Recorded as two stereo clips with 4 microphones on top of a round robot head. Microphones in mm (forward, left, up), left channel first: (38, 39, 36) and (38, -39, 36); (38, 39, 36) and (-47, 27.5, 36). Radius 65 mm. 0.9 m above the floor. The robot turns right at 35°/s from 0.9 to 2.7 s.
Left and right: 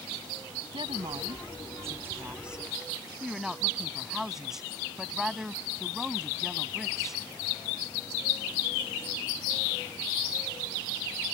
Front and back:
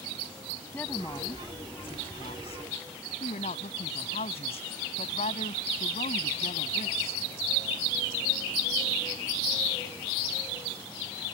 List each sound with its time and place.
0.7 s a woman speaking: 70° right; by 7.2 s 5° right